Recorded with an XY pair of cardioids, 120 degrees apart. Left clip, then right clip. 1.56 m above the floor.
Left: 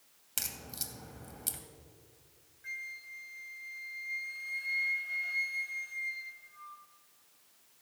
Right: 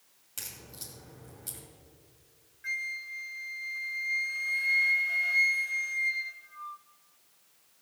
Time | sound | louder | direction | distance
0.4 | a crack | left 4 dB | 55° left | 2 m
2.6 | a flute | right 8 dB | 45° right | 0.6 m